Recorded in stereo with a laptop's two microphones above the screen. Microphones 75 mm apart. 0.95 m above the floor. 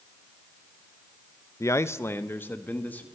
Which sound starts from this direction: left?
A man speaking, at 1.6 s.